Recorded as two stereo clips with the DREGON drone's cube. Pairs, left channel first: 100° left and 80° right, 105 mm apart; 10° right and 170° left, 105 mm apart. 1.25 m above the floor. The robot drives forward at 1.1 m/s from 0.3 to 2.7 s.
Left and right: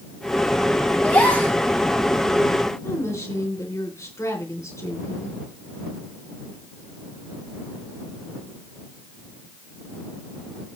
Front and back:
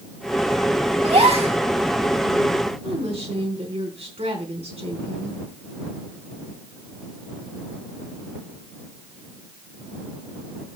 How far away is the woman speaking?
About 3.5 m.